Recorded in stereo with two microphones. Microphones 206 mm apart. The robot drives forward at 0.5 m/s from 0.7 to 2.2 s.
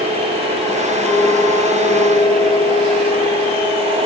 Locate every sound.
1.1 s a clink: 5° left (ahead or behind), 6.5 m